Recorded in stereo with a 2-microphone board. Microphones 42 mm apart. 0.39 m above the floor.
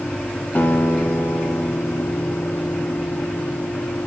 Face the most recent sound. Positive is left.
turn(degrees=40)  # may be behind; listen again after turning